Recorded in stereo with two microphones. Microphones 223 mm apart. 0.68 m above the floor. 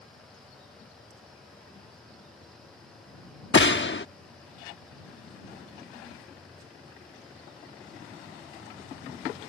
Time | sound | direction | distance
3.5 | a gunshot | 55° left (ahead or behind) | ?